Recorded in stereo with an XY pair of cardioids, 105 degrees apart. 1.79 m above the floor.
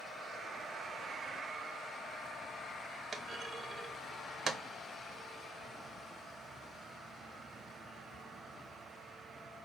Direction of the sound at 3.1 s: 35° right.